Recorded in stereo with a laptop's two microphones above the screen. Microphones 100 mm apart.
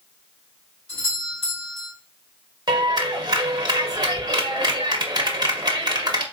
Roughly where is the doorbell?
Left.